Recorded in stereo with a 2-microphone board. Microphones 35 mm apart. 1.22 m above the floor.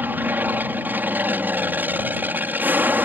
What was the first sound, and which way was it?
An aircraft, 60° right (ahead or behind).